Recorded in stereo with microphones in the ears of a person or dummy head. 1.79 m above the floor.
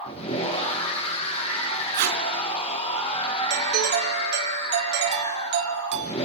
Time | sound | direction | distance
0.0 | a machine running | 35° left (ahead or behind) | 5.5 m
1.9 | tape being pulled | 55° right (ahead or behind) | 4.5 m
3.5 | a doorbell | 55° right (ahead or behind) | 4 m